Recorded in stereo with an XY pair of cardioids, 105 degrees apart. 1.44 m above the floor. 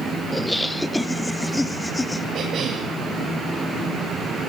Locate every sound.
0.3 s laughter: 5° left, 1.3 m; by 2.2 s 15° left, 2.5 m
2.3 s a cough: 65° right, 8.5 m